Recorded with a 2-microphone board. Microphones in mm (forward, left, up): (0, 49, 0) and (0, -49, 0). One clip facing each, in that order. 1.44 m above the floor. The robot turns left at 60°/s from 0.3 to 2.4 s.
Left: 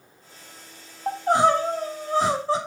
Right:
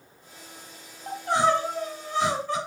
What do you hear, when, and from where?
1.1 s crying: 130° left, 1.6 m; by 2.6 s 50° left, 1.6 m